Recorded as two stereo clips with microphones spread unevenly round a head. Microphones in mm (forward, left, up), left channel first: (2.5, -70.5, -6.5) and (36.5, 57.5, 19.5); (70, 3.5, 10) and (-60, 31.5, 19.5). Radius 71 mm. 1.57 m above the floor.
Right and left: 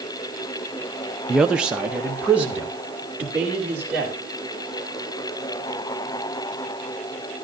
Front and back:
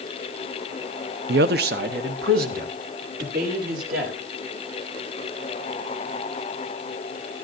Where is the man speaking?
165° left, 0.6 m; by 4.2 s 155° left, 3.5 m.